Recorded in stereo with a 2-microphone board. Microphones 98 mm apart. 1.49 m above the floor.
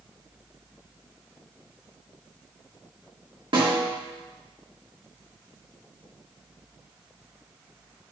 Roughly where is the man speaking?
I don't hear a man speaking.